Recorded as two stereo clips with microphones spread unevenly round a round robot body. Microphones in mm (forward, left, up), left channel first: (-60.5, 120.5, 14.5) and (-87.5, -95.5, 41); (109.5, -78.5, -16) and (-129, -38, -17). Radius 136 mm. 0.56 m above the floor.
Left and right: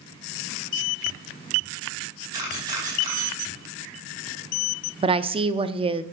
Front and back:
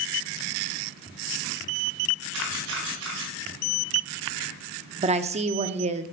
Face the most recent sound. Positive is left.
turn(degrees=-155)